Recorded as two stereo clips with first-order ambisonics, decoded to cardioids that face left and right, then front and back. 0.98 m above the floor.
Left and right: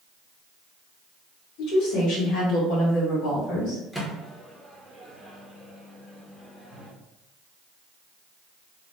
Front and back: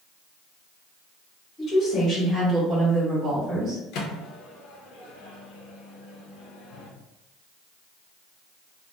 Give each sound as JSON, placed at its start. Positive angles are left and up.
{"t": 1.6, "sound": "a woman speaking", "azimuth_deg": 60, "distance_m": 1.4}
{"t": 3.9, "sound": "a microwave", "azimuth_deg": 5, "distance_m": 0.6}